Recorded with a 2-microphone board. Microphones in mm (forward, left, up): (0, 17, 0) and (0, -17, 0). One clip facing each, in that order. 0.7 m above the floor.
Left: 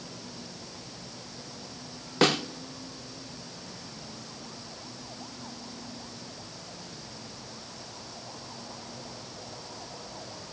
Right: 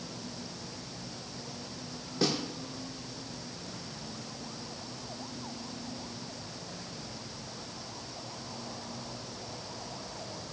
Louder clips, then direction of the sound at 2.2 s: Left 7 dB; 65° left (ahead or behind).